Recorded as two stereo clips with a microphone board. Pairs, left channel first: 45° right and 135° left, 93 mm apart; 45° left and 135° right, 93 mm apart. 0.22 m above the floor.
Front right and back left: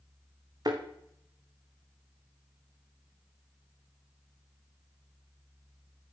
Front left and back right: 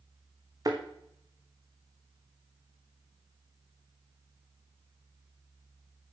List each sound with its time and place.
0.7 s a thud: straight behind, 1.9 m